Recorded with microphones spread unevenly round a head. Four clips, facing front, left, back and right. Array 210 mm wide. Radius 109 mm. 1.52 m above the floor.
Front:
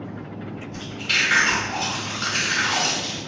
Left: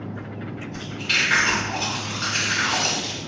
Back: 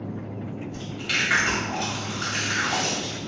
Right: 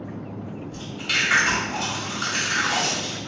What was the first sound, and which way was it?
Chewing, 140° right.